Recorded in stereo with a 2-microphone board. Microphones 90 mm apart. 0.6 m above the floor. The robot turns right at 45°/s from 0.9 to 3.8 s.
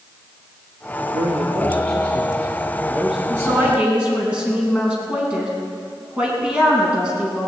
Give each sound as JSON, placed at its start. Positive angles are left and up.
{"t": 1.1, "sound": "a man speaking", "azimuth_deg": -95, "distance_m": 1.5}
{"t": 3.3, "sound": "a woman speaking", "side_deg": -35, "distance_m": 5.0}